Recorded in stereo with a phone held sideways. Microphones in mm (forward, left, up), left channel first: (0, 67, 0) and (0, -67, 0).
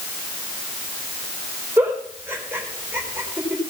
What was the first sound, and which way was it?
A giggle, 15° right (ahead or behind).